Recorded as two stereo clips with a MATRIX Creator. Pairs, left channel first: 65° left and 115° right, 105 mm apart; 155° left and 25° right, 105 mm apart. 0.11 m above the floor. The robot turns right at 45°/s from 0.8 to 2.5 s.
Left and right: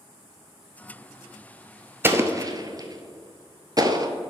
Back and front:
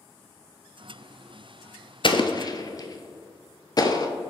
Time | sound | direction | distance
2.0 | an explosion | straight behind | 0.6 m